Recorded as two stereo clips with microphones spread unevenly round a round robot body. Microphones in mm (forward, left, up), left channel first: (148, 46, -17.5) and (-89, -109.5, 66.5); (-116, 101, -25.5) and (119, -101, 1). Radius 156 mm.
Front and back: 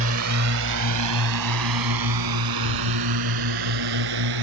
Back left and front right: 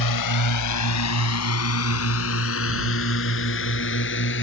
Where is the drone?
160° left; by 4.4 s 165° right.